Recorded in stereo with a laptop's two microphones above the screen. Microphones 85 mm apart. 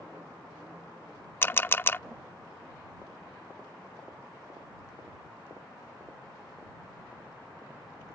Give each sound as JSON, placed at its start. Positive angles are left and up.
{"t": 1.4, "sound": "a camera shutter", "side_deg": 25}